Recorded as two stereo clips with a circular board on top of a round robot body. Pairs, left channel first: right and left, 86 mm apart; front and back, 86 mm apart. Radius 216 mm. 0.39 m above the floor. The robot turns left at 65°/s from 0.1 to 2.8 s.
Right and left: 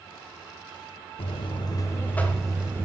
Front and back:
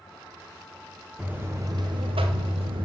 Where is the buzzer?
100° right, 0.9 m; by 2.9 s 155° left, 0.9 m.